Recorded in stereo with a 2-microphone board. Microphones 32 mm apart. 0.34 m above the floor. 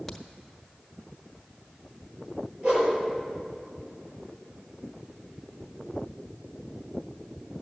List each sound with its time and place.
0.1 s a crack: 5° left (ahead or behind), 1.1 m
2.6 s a whoosh: 50° right (ahead or behind), 5.5 m